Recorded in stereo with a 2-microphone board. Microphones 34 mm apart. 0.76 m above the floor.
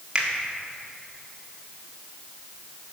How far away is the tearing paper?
I don't hear tearing paper.